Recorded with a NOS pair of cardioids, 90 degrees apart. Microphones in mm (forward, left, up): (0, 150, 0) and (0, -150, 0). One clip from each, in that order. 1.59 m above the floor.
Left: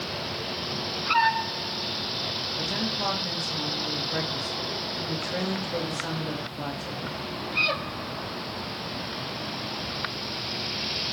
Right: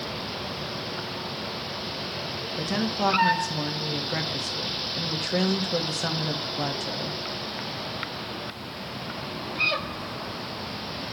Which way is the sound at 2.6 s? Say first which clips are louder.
Right 5 dB; 35° right.